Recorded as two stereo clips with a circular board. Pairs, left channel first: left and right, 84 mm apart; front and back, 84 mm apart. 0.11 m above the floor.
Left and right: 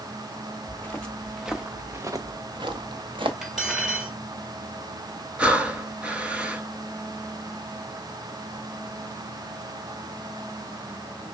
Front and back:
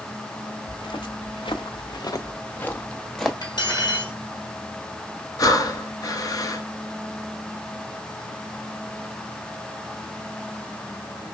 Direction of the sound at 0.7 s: 20° left.